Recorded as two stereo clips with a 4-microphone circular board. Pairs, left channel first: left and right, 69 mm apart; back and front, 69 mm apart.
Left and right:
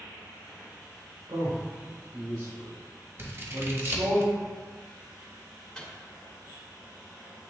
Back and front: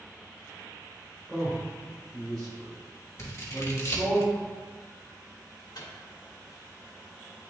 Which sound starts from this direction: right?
A man speaking, at 1.3 s.